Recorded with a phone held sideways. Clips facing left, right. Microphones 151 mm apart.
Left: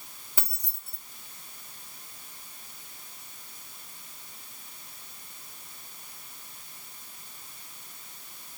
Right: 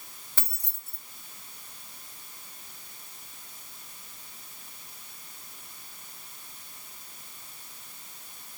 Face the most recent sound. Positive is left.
turn(degrees=15)  # may be behind; listen again after turning